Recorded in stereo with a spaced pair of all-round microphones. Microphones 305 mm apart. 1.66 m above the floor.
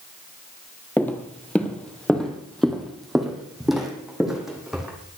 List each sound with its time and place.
1.0 s footsteps: 5° left (ahead or behind), 1.7 m; by 4.9 s centre (ahead or behind), 3.5 m